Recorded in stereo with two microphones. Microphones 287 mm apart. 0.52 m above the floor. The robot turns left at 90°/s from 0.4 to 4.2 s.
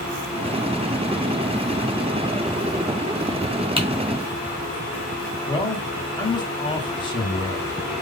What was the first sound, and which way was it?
Typing on a keyboard, 20° right (ahead or behind).